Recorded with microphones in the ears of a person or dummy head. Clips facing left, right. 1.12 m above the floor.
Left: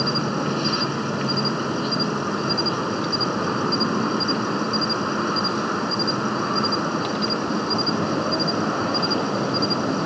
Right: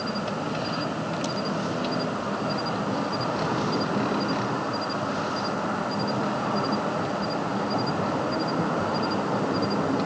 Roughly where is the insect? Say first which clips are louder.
Left 5 dB; left.